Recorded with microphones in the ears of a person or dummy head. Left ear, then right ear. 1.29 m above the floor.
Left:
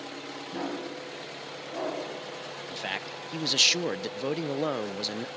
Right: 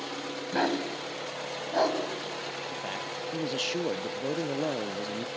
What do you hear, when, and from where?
0.5 s a dog barking: 60° right (ahead or behind), 3 m
2.7 s a man speaking: 45° left (ahead or behind), 0.5 m